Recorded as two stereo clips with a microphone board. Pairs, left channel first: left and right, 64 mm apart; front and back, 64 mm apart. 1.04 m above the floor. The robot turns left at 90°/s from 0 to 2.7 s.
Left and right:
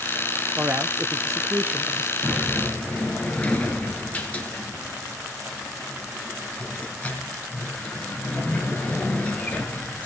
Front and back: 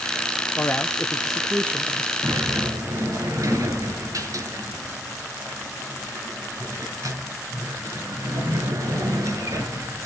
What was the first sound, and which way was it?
A man speaking, 35° right.